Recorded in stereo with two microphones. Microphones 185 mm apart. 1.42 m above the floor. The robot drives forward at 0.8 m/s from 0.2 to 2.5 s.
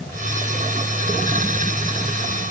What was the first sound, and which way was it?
Only background noise.